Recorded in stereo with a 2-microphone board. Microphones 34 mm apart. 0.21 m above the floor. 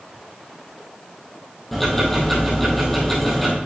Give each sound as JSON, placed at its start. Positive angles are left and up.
{"t": 1.7, "sound": "ticking", "side_deg": 5, "distance_m": 2.5}